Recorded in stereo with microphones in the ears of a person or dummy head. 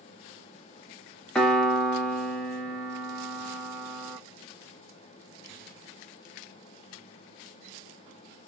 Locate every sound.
1.4 s a piano: 5° left (ahead or behind), 0.7 m